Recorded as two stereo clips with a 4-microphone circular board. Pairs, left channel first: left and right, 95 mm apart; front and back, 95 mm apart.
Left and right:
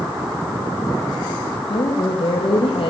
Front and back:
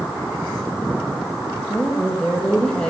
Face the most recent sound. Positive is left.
turn(degrees=80)